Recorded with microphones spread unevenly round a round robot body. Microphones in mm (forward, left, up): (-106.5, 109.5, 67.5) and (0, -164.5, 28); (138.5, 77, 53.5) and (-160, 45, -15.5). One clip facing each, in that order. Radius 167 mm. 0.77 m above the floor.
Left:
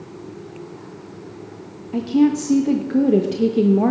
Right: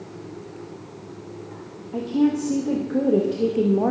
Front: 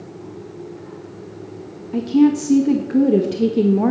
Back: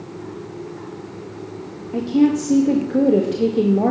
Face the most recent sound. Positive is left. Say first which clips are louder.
# left 4 dB, front 2 dB
turn(degrees=70)